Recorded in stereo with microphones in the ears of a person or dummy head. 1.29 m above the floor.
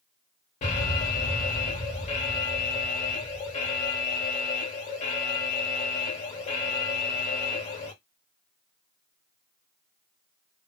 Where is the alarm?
40° left (ahead or behind), 1.2 m.